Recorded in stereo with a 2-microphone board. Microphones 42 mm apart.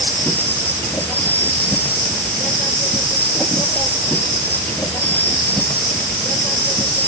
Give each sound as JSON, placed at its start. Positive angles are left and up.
{"t": 0.0, "sound": "an insect", "side_deg": 45}